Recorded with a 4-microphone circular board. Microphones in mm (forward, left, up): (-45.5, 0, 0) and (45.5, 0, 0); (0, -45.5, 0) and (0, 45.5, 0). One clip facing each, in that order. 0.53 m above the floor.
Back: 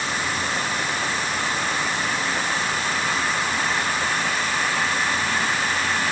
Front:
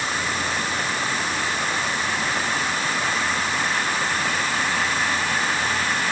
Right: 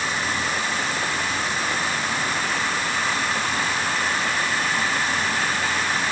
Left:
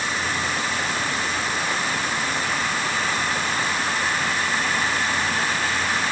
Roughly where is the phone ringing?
I don't hear a phone ringing.